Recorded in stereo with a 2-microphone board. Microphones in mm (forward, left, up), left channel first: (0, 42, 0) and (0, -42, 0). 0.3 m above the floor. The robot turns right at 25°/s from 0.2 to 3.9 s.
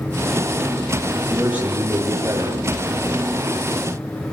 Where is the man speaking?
170° right, 8 m; by 2.6 s 135° right, 8 m.